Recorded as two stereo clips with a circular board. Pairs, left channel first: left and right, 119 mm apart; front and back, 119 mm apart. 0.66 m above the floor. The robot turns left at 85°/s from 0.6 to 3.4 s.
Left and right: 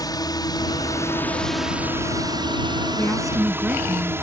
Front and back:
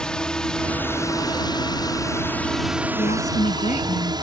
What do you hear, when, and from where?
0.0 s a drone: 80° left; by 4.2 s 150° right
3.0 s a woman speaking: 25° left; by 4.2 s 15° right